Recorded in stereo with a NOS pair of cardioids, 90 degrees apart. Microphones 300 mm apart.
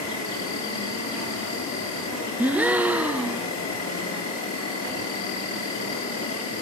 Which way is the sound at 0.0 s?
60° left.